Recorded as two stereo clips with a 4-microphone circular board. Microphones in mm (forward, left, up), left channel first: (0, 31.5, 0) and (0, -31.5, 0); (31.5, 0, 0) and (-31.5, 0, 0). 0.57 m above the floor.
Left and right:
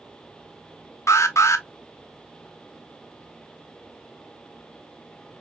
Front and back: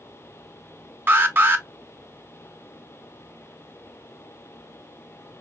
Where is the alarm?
125° left, 0.7 m.